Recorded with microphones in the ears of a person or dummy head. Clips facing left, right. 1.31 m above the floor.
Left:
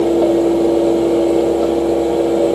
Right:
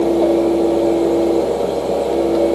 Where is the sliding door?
I don't hear a sliding door.